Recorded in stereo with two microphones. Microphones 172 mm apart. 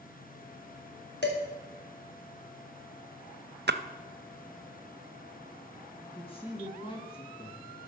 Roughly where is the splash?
Right.